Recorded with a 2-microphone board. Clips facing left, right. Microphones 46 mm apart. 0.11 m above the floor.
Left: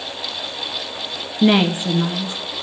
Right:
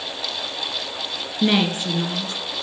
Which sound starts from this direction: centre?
A woman speaking, at 1.4 s.